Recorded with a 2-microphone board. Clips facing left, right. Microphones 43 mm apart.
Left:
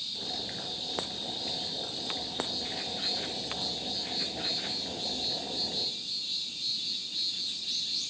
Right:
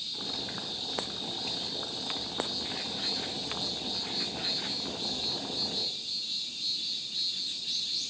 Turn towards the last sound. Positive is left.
turn(degrees=-75)  # may be behind; listen again after turning